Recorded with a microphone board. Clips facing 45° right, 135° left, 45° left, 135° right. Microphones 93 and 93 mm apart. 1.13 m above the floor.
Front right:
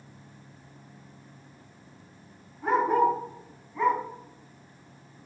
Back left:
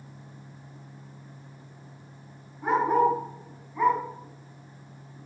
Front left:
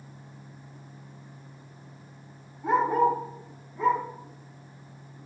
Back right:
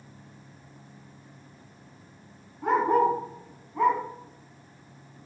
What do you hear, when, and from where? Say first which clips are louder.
2.6 s a dog barking: even, back right 1 dB; 155° right, 5.5 m; by 4.0 s 145° right, 4 m